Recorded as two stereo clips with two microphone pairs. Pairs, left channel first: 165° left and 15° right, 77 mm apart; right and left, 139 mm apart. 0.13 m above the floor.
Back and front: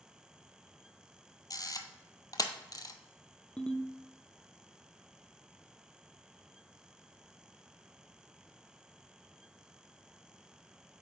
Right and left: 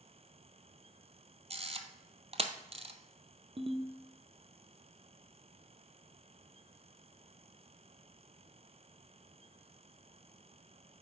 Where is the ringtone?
95° left, 0.7 m.